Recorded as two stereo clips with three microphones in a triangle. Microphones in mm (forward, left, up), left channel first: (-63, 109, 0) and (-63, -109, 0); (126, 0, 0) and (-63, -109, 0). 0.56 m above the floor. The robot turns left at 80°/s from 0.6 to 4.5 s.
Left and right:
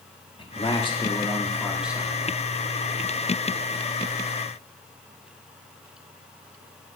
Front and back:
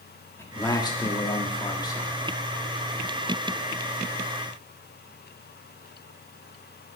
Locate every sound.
0.4 s a man speaking: 90° left, 1.2 m; by 2.1 s 35° right, 1.2 m